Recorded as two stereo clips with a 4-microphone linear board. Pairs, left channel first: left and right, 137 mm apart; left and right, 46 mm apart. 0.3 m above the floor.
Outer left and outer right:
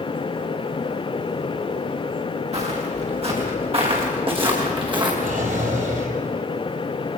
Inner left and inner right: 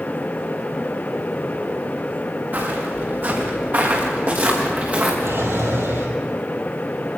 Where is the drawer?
85° right, 4.5 m.